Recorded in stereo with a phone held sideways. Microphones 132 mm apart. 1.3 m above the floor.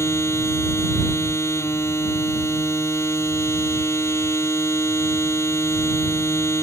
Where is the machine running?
20° left (ahead or behind).